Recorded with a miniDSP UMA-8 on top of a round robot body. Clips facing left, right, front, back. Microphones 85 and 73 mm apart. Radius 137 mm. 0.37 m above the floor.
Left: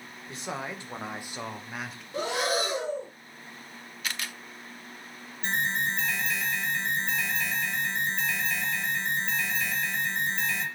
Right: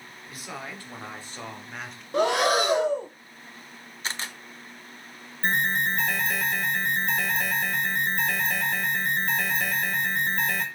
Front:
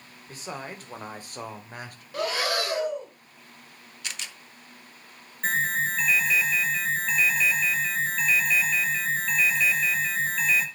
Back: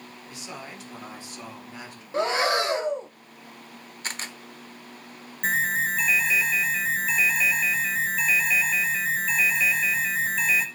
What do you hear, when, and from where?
0.3 s a man speaking: 35° left, 2.5 m; by 2.0 s straight ahead, 2.5 m
2.1 s breathing: 115° right, 0.9 m
4.0 s a camera shutter: 140° right, 1.1 m
5.4 s an alarm: 100° right, 2 m